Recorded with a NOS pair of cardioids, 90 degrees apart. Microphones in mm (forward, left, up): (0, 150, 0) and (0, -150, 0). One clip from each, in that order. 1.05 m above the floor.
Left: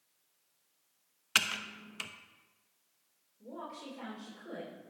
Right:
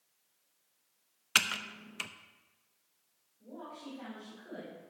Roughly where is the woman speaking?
Ahead left.